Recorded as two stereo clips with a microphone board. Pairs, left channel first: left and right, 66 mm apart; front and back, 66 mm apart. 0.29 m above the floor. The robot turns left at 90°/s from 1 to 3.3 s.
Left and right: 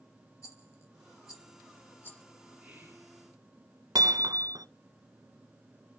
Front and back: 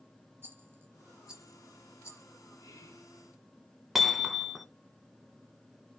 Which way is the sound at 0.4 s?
130° left.